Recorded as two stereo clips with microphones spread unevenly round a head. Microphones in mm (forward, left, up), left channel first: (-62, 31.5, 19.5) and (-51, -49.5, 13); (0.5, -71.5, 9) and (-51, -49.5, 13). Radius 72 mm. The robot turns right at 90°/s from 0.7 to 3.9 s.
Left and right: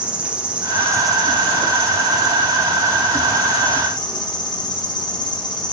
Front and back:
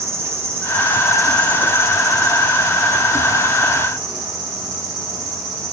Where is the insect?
160° right, 1.4 m; by 5.7 s 130° left, 1.4 m.